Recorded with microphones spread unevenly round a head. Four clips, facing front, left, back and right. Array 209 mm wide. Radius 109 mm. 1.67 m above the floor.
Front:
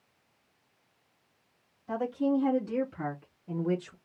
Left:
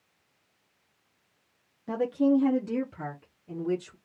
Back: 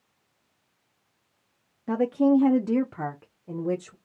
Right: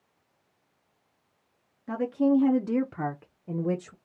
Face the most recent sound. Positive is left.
turn(degrees=-95)